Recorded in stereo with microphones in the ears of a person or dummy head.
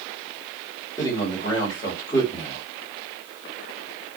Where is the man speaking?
20° left (ahead or behind), 1.9 m.